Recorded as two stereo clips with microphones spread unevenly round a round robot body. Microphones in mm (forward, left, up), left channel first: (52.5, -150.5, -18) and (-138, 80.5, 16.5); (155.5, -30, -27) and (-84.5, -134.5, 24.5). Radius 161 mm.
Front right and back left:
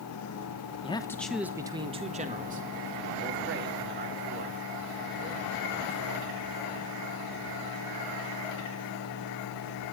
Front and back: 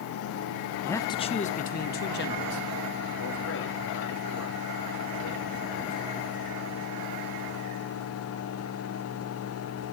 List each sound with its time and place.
0.8 s a man speaking: 25° right, 0.9 m; by 6.4 s 70° left, 5 m